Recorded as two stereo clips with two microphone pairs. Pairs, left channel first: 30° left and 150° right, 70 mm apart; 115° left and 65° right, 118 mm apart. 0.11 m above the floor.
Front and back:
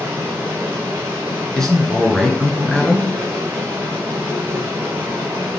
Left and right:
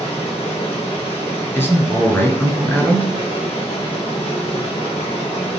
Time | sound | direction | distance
0.0 | running water | 150° left | 3 m
1.6 | a man speaking | 100° left | 1.4 m